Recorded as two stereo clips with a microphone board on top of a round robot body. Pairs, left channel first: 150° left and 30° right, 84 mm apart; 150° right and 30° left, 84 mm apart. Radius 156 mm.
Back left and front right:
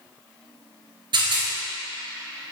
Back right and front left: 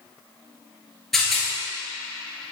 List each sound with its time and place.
1.1 s a rattle: 60° right, 1.9 m